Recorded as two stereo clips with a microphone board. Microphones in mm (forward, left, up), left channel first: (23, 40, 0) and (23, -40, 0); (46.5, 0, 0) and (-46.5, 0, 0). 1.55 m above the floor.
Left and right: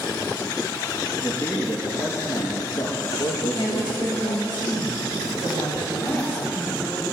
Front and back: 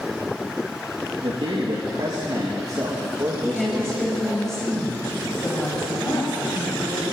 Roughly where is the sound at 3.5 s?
Left.